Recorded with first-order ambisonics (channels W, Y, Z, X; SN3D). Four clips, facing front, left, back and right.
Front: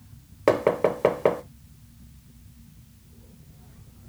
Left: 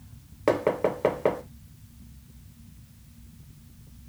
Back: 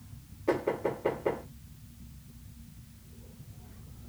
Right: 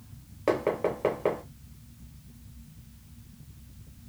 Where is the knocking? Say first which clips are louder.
Left 3 dB, front 9 dB; 15° left, 0.5 m.